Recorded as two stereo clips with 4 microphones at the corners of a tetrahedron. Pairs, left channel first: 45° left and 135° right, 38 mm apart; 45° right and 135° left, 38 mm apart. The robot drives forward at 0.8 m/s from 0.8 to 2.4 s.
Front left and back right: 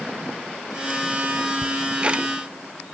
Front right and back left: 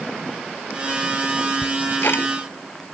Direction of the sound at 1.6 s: 70° right.